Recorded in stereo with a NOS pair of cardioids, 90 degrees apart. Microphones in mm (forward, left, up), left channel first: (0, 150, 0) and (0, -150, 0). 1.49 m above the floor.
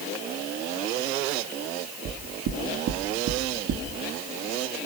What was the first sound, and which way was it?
Knocking, 65° right.